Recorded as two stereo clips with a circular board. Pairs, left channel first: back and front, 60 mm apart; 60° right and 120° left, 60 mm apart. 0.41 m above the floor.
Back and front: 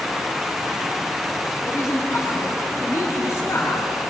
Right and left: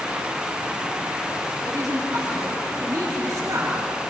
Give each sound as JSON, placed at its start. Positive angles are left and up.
{"t": 1.7, "sound": "a woman speaking", "azimuth_deg": 145, "distance_m": 5.5}